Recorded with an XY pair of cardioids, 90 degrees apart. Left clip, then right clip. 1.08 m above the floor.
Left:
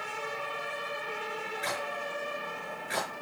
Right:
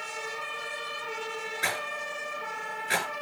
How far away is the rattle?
About 9 m.